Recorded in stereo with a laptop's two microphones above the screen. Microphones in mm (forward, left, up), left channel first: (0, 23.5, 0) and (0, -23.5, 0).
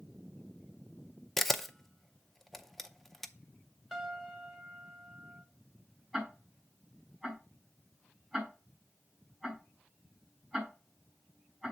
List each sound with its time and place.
1.4 s a camera shutter: 5° left (ahead or behind), 0.5 m
3.9 s a piano: centre (ahead or behind), 1.2 m
6.1 s ticking: 5° left (ahead or behind), 4.5 m